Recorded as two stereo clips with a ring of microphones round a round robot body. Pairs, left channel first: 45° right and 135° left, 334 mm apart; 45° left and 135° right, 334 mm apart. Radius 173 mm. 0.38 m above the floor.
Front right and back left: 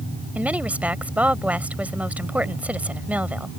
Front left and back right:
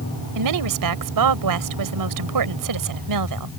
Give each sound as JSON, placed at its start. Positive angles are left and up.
{"t": 0.3, "sound": "a woman speaking", "azimuth_deg": -140}